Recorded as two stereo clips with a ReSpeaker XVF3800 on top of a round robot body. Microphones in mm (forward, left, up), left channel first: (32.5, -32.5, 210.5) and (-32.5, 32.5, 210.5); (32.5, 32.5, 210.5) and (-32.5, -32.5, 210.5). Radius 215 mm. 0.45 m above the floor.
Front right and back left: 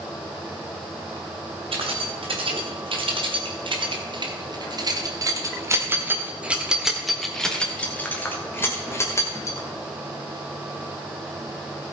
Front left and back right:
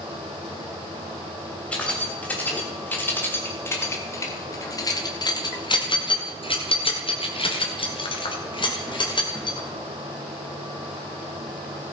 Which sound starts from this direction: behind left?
Keys jangling, at 1.7 s.